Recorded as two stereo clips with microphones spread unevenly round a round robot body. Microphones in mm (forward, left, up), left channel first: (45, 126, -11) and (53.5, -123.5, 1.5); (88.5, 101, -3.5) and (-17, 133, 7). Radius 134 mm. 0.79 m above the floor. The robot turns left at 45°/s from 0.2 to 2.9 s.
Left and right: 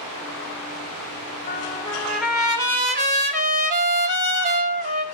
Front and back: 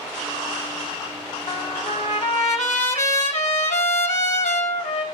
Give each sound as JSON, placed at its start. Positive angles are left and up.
{"t": 1.5, "sound": "a trumpet", "azimuth_deg": 30, "distance_m": 4.0}